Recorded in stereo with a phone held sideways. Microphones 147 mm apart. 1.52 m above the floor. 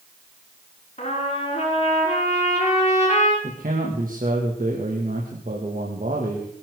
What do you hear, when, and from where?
1.0 s a trumpet: 50° left (ahead or behind), 6.5 m
3.4 s a man speaking: 70° right (ahead or behind), 2.5 m